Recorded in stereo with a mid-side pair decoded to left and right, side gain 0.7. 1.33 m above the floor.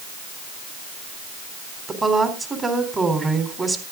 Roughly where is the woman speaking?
Ahead.